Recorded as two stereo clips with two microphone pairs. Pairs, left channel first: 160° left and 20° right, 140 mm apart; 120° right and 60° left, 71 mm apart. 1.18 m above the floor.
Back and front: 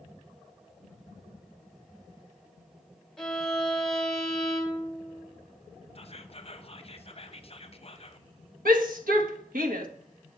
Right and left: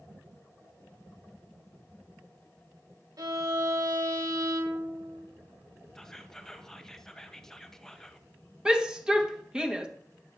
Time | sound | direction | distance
3.2 | a violin | 75° left | 1.1 m
6.0 | whispering | 155° left | 0.8 m
8.7 | a shout | 20° right | 1.3 m